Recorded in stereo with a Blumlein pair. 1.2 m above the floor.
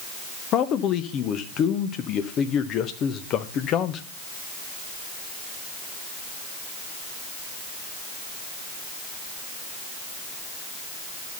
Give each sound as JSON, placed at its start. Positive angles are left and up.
{"t": 0.5, "sound": "a man speaking", "azimuth_deg": 30, "distance_m": 1.0}